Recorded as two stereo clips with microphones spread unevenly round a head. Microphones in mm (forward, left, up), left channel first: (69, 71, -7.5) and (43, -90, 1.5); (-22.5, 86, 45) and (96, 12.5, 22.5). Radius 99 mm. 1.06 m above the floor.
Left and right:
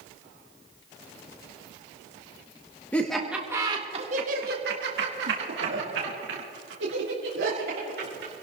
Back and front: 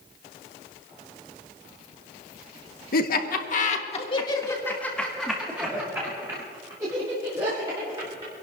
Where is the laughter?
160° left, 1.3 m; by 8.3 s 90° right, 3.5 m.